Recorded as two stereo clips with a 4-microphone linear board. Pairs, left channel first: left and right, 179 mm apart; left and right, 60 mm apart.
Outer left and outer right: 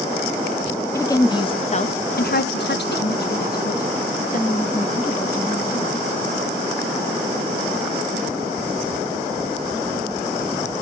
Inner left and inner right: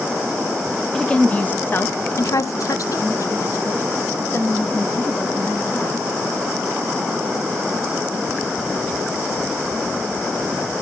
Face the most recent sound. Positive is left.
turn(degrees=35)  # may be behind; listen again after turning